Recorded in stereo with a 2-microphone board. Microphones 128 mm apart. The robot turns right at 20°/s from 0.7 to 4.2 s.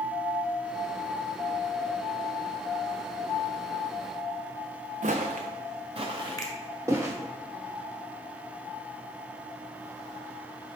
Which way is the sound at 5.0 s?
70° right (ahead or behind).